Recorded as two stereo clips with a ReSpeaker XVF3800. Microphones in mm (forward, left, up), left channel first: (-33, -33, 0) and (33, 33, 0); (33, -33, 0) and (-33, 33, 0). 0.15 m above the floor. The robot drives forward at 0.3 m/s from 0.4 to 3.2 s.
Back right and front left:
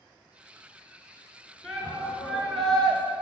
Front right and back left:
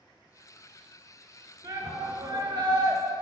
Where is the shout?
135° left, 1.8 m; by 3.0 s 145° left, 2 m.